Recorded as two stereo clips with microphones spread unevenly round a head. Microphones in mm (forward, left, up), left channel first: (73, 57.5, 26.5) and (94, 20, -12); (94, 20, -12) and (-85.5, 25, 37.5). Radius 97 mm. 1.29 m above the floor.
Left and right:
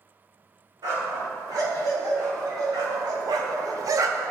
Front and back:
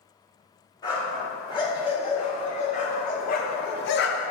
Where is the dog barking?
75° right, 2.5 m; by 4.3 s straight ahead, 0.8 m.